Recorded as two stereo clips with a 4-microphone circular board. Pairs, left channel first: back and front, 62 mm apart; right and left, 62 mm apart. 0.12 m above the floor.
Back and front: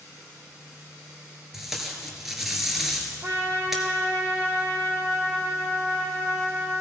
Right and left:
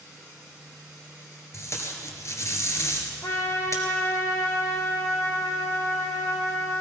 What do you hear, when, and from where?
1.5 s tape being pulled: 85° right, 2 m
3.2 s a trumpet: 55° right, 2.5 m